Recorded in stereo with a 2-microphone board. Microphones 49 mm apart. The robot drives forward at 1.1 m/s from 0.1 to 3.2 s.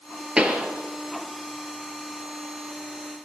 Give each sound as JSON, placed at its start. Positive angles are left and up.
{"t": 0.4, "sound": "a pop", "side_deg": -15, "distance_m": 2.0}